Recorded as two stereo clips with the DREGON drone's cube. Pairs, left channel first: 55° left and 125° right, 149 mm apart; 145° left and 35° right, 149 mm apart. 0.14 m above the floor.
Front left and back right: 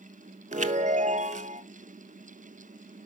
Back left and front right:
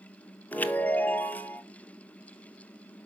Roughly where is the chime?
Behind right.